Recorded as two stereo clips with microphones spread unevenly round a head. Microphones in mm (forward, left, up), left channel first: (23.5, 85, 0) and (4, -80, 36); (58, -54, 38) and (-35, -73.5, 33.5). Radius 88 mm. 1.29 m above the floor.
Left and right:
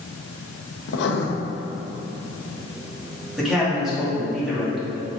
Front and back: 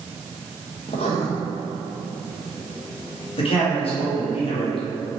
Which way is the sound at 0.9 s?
60° left.